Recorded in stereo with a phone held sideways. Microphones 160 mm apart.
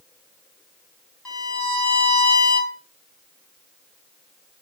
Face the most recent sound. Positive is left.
turn(degrees=5)  # may be behind; listen again after turning